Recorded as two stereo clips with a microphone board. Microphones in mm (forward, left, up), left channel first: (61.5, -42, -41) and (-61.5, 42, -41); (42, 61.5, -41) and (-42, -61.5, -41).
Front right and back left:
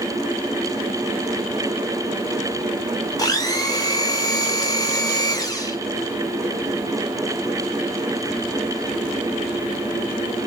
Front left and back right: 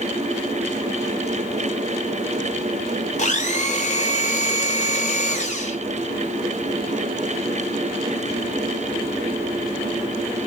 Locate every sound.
3.2 s a blender: 30° left, 0.6 m